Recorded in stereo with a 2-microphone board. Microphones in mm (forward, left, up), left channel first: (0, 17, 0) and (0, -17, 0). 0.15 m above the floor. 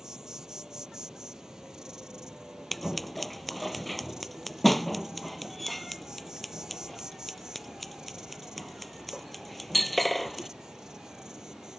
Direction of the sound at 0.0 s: 20° right (ahead or behind).